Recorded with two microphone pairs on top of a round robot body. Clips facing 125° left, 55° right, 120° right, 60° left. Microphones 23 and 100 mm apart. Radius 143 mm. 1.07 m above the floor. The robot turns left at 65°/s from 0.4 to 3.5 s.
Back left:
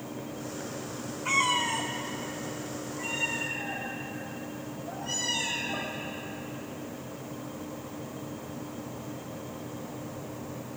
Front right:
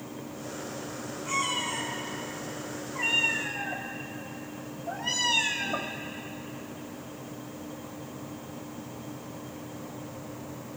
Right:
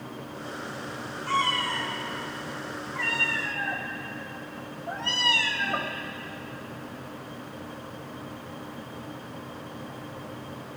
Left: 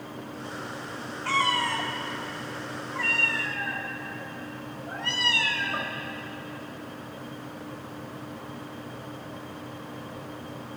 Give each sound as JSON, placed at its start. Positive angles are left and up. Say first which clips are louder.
{"t": 1.2, "sound": "a cat meowing", "louder": "back left 4 dB, left 1 dB", "azimuth_deg": 90, "distance_m": 0.8}